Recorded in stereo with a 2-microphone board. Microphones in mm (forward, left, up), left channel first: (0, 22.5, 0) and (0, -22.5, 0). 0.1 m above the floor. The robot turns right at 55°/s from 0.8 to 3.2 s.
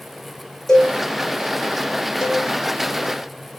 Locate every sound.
0.7 s a cowbell: 10° left (ahead or behind), 2.5 m; by 0.9 s 20° left (ahead or behind), 2.5 m
2.2 s a cowbell: 5° right (ahead or behind), 1.3 m; by 2.5 s centre (ahead or behind), 1.3 m